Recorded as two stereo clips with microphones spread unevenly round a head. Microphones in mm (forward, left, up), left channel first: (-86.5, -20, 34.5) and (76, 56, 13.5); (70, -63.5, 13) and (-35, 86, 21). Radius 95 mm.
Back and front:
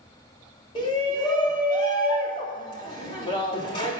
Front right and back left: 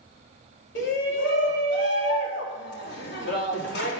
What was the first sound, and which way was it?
A shout, 90° right.